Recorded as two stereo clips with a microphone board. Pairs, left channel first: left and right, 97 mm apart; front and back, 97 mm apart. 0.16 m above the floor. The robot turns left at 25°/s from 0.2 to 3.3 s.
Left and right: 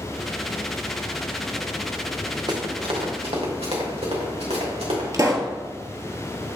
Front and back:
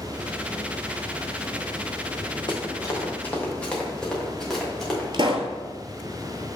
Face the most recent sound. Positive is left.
turn(degrees=-145)